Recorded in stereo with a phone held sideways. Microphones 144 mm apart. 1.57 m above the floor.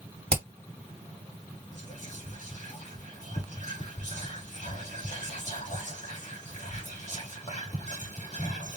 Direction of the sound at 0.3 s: 45° right (ahead or behind).